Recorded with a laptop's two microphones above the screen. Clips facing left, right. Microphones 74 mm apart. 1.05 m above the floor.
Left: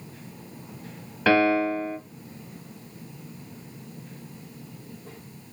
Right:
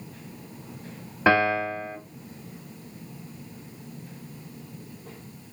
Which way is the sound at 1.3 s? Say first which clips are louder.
Left 1 dB; 20° right (ahead or behind).